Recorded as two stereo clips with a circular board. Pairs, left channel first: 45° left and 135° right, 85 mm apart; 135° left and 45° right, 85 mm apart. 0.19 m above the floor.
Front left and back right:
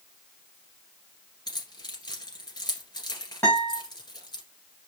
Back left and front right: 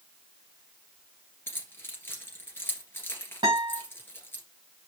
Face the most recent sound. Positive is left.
turn(degrees=-20)